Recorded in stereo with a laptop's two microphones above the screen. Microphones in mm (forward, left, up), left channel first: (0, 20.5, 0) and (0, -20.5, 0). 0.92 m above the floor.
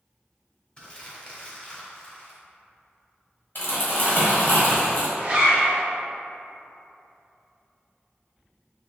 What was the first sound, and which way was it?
Crumpling, 25° left (ahead or behind).